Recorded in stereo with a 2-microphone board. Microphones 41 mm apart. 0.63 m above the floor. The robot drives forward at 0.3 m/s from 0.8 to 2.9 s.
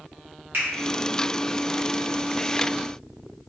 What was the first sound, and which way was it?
A finger snap, 60° right (ahead or behind).